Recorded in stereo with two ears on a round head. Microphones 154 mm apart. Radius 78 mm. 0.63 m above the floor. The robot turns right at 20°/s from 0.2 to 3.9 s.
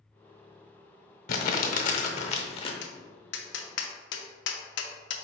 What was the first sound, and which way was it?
Crumpling, 60° left (ahead or behind).